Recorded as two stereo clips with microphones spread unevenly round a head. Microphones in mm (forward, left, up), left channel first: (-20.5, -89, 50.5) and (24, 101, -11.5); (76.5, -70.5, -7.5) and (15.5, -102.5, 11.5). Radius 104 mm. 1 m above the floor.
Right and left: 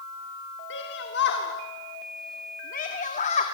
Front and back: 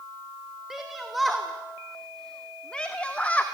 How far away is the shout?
About 3 m.